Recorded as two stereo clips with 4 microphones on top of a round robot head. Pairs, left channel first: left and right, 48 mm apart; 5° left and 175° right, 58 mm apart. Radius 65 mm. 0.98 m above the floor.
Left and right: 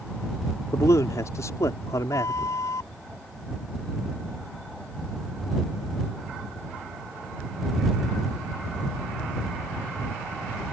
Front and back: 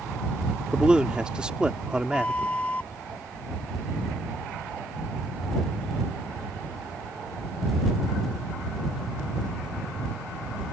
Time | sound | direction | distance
0.7 | a man speaking | 110° left | ?
2.1 | a flute | 75° left | ?